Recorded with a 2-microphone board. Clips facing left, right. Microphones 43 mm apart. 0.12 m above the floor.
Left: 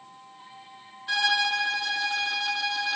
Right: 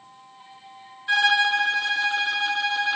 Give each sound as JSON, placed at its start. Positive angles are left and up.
{"t": 1.1, "sound": "a violin", "side_deg": -25, "distance_m": 0.7}